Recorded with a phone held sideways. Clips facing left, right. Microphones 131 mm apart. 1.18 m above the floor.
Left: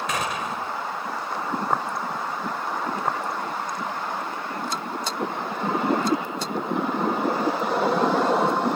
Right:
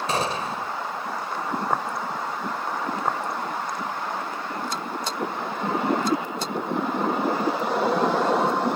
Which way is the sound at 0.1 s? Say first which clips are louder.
Right 2 dB; 30° right (ahead or behind).